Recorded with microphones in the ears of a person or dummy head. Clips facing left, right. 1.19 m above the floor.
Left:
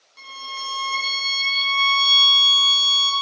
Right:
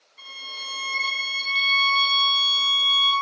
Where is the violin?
80° left, 0.8 m.